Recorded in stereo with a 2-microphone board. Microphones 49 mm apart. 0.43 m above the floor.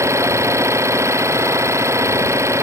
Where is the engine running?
80° right.